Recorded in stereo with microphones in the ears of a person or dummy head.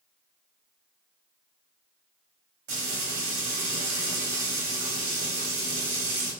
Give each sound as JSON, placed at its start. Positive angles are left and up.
{"t": 2.7, "sound": "frying", "side_deg": -60, "distance_m": 1.9}